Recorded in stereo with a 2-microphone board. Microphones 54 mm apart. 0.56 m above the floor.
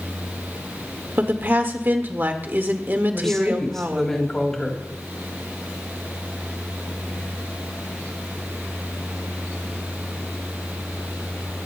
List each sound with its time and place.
1.2 s a woman speaking: 40° right (ahead or behind), 1.6 m
3.1 s a woman speaking: 5° left (ahead or behind), 3.5 m